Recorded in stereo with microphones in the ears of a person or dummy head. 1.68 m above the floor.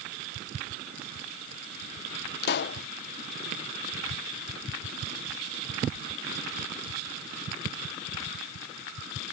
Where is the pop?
65° left (ahead or behind).